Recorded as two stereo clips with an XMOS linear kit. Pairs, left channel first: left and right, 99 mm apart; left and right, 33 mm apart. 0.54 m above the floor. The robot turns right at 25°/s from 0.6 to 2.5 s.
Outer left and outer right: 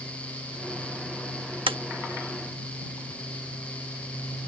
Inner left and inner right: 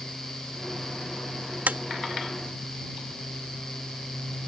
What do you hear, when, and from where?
1.7 s tapping: 65° right (ahead or behind)